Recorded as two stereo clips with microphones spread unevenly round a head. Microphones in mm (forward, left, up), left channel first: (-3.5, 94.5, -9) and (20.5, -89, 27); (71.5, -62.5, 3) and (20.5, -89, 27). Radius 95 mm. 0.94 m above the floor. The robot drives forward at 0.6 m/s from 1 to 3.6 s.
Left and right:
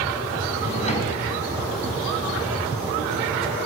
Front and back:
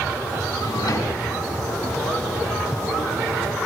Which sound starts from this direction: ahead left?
A drawer, at 0.6 s.